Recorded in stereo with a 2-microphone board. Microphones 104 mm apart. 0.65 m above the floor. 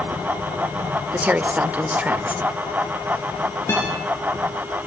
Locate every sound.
1.1 s a woman speaking: 15° right (ahead or behind), 1.6 m
3.7 s a guitar: 20° left (ahead or behind), 10 m